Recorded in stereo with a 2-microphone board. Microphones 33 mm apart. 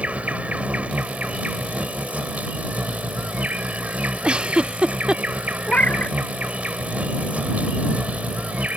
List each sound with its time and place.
0.0 s an insect: 45° right (ahead or behind)
4.2 s a giggle: 35° right (ahead or behind)
5.7 s a cat meowing: 60° left (ahead or behind)